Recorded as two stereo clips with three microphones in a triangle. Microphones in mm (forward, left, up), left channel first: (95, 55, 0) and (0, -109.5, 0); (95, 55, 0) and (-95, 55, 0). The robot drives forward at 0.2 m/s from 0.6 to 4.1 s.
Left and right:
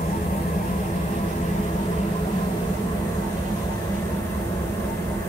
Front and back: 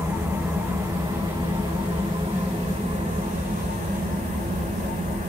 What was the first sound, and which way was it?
An engine running, 100° left.